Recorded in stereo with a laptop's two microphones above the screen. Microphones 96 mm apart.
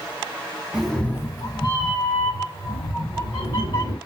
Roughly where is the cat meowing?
Centre.